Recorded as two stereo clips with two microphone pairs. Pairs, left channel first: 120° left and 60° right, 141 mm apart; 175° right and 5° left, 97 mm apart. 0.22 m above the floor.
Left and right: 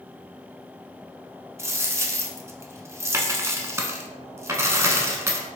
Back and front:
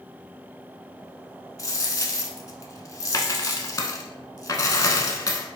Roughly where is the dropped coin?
Behind right.